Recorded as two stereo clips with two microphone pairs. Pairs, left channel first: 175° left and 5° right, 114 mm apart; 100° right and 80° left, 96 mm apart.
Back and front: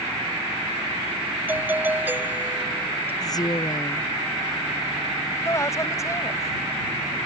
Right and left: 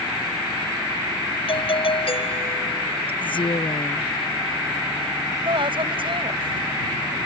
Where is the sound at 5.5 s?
110° left.